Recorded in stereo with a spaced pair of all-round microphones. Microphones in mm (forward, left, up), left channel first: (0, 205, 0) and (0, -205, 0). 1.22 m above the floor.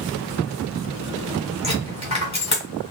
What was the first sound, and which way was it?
A dropped coin, 60° left (ahead or behind).